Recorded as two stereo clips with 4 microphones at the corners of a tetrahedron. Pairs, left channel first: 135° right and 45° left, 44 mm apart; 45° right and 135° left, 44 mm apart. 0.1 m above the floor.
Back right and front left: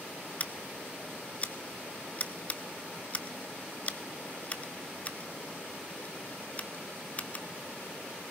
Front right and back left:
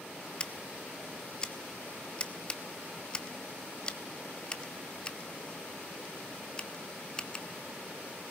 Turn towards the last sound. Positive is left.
turn(degrees=-100)